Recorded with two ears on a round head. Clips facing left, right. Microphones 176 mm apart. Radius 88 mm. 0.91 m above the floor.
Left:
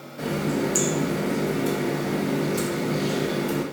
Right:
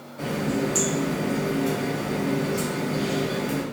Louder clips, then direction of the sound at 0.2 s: Left 1 dB; 15° left (ahead or behind).